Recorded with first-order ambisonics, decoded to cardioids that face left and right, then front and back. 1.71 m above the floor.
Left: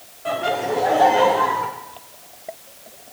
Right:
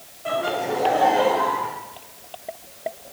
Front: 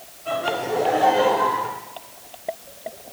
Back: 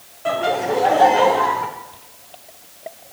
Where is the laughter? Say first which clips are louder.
Left 2 dB, back 4 dB; 175° left, 1.8 m; by 1.7 s 155° left, 1.4 m.